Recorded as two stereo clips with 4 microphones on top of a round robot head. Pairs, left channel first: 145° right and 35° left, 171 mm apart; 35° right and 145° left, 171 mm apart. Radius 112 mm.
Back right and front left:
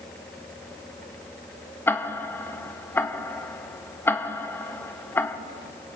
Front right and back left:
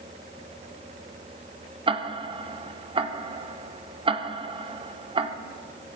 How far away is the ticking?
About 1.1 m.